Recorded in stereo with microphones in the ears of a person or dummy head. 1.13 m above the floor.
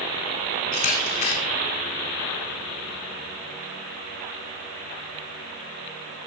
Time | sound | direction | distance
0.7 | a camera shutter | 50° left (ahead or behind) | 1.6 m